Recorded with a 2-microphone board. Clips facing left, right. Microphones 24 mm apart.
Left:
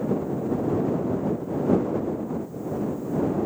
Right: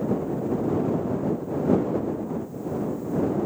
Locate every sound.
Only background noise.